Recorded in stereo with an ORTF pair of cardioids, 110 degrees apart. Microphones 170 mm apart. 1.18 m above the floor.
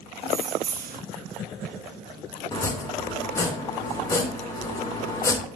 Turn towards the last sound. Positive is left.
turn(degrees=20)